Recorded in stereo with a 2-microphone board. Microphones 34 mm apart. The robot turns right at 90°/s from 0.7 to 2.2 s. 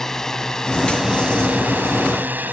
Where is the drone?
10° left (ahead or behind); by 2.5 s 60° right (ahead or behind).